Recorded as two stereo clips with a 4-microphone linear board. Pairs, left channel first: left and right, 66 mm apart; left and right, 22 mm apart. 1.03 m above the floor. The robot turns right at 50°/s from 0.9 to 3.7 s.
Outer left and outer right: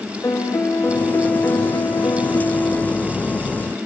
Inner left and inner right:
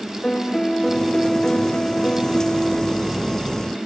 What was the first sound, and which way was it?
A piano, 50° left.